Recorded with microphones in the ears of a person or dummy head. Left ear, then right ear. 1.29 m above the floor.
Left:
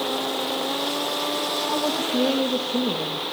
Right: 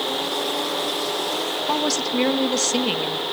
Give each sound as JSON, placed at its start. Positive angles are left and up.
{"t": 1.7, "sound": "a woman speaking", "side_deg": -65, "distance_m": 2.0}